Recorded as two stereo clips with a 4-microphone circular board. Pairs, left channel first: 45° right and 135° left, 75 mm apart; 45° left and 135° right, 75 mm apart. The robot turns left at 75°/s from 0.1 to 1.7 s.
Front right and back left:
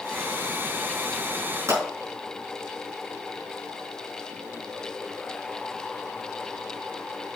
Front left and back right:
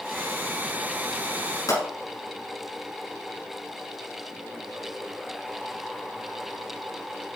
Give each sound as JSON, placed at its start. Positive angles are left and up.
{"t": 1.7, "sound": "a pop", "azimuth_deg": 90, "distance_m": 6.0}